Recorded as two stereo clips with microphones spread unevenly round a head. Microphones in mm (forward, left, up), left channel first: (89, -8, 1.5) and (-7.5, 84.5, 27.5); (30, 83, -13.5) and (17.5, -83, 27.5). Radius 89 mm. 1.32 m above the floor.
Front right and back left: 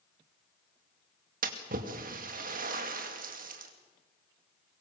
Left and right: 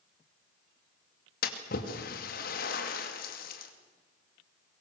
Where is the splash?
120° left, 2.5 m.